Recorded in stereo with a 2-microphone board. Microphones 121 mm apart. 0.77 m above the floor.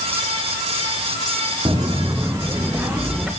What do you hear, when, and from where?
1.6 s footsteps: 35° right (ahead or behind), 1.6 m; by 3.3 s 10° right (ahead or behind), 3.5 m